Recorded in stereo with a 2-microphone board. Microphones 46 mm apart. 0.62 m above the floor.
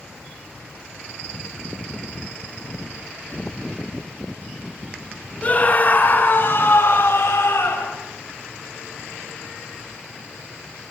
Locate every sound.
5.4 s a scream: 30° left (ahead or behind), 2.5 m; by 8.0 s 70° left (ahead or behind), 3.5 m